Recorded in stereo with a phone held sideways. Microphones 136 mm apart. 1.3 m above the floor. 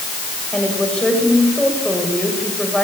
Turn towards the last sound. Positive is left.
turn(degrees=5)  # may be behind; listen again after turning